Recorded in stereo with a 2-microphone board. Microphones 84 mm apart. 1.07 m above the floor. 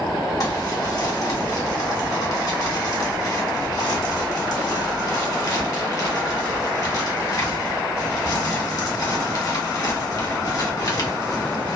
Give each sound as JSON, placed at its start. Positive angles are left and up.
{"t": 0.4, "sound": "crumpling", "side_deg": 50, "distance_m": 1.0}